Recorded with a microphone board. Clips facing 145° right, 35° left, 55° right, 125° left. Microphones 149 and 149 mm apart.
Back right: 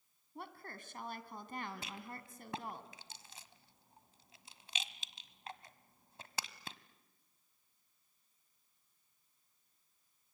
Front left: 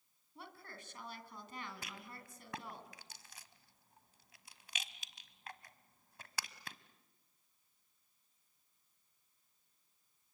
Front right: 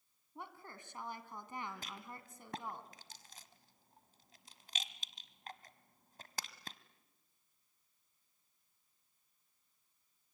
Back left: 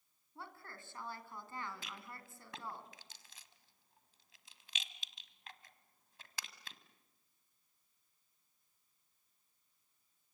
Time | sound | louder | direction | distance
0.3 | a woman speaking | back right 4 dB, front right 1 dB | 125° right | 2.5 m
1.8 | a rattle | back right 4 dB, front right 2 dB | 90° right | 1.2 m